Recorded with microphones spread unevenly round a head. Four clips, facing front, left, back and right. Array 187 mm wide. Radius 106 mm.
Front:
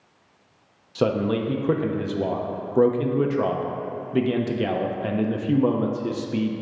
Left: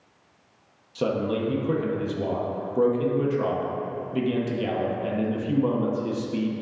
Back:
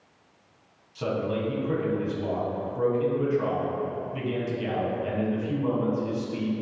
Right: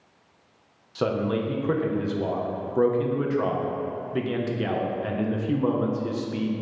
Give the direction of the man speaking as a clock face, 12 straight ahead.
12 o'clock.